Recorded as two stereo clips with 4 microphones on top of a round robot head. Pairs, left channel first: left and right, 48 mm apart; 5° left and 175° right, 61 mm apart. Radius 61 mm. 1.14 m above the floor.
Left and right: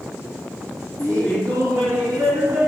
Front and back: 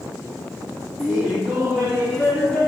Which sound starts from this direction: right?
Laughter, at 1.0 s.